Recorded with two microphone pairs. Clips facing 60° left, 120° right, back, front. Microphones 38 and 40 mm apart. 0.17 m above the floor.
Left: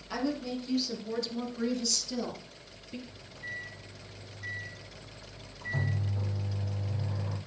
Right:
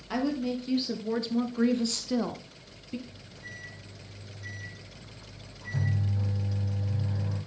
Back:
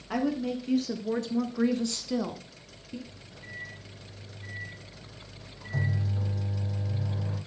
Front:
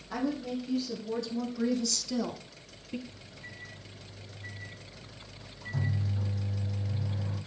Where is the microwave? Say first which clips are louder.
Left 4 dB, back 3 dB; 130° left, 5 m.